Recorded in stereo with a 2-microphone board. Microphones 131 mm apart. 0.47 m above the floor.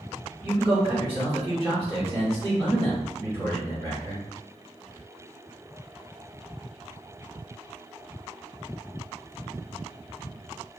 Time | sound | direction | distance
0.4 | a man speaking | 45° right (ahead or behind) | 1.6 m